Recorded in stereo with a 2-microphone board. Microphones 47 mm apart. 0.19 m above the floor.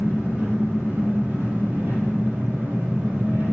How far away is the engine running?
About 5 m.